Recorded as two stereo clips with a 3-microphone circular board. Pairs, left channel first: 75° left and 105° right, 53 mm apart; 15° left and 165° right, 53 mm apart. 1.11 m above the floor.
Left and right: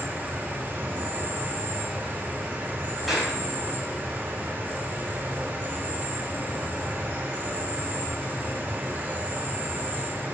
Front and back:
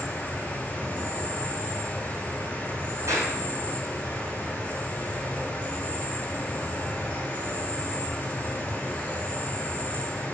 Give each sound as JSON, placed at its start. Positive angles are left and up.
{"t": 0.0, "sound": "an insect", "azimuth_deg": -50, "distance_m": 2.5}
{"t": 3.1, "sound": "a clap", "azimuth_deg": 165, "distance_m": 5.0}